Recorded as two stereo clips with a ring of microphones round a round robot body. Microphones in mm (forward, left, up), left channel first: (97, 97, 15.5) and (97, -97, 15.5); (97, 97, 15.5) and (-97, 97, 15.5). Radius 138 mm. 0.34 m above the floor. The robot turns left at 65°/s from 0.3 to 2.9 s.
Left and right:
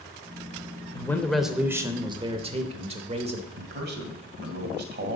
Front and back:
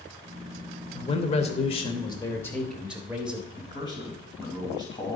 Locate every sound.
0.9 s a man speaking: 30° left, 0.9 m; by 3.5 s 100° right, 0.9 m
3.6 s a man speaking: 70° right, 1.9 m